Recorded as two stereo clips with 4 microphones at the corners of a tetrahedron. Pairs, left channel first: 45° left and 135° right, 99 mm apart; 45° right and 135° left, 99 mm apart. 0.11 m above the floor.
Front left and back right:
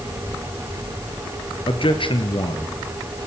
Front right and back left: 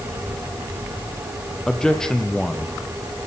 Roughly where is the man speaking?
Ahead left.